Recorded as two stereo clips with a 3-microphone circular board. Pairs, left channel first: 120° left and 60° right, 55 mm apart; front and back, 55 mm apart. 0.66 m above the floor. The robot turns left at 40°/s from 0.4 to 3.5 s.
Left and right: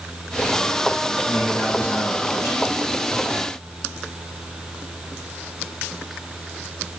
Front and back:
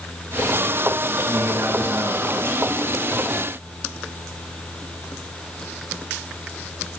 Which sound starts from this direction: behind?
A man speaking, at 1.3 s.